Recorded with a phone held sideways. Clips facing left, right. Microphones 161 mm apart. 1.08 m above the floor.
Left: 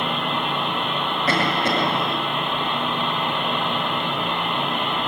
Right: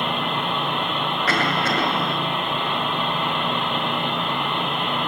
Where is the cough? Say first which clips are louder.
Left 2 dB; 20° left (ahead or behind), 7.5 m.